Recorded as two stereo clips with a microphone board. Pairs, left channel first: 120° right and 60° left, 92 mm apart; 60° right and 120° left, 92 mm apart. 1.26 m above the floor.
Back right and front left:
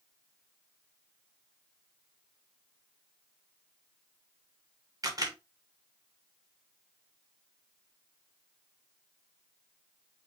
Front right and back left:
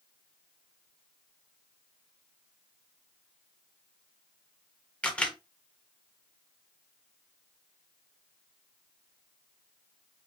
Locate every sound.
5.0 s a camera shutter: 15° left, 1.2 m